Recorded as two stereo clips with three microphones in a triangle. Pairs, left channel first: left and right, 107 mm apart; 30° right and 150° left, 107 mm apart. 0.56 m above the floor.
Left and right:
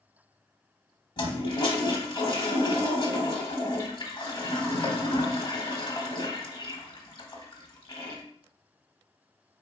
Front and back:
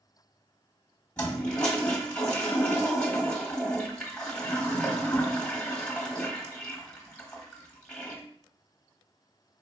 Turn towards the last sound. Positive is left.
turn(degrees=50)